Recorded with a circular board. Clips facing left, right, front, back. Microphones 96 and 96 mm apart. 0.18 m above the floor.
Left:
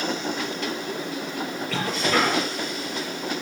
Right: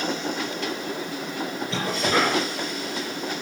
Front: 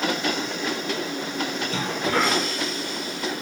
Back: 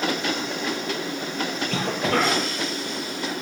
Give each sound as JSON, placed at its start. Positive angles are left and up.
{"t": 1.7, "sound": "a cough", "azimuth_deg": -160, "distance_m": 4.5}